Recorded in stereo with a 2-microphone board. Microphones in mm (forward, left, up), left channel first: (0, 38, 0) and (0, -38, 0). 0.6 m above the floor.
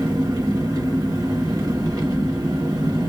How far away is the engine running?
About 0.8 m.